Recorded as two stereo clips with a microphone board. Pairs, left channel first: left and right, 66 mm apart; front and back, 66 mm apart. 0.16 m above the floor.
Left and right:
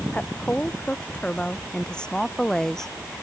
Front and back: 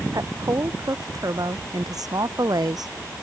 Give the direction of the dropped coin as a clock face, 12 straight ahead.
No dropped coin in this recording.